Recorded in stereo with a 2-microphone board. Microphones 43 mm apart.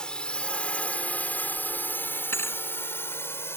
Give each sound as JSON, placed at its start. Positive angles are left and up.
{"t": 0.0, "sound": "a drone", "side_deg": 20}
{"t": 2.3, "sound": "a thud", "side_deg": 70}